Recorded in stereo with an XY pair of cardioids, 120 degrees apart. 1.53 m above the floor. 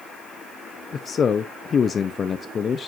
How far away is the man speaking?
About 0.6 m.